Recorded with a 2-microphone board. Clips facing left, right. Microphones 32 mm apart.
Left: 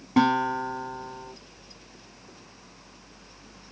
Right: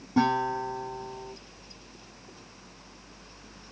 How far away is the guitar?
About 1.2 m.